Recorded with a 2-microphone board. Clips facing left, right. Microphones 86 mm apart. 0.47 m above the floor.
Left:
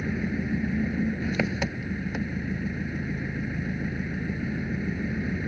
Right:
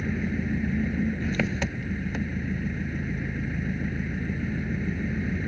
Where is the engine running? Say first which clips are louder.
Even; 10° left (ahead or behind).